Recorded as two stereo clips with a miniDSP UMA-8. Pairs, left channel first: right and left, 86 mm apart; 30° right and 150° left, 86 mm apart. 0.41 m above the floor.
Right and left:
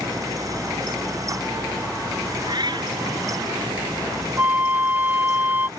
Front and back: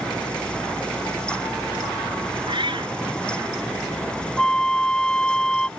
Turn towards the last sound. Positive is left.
turn(degrees=40)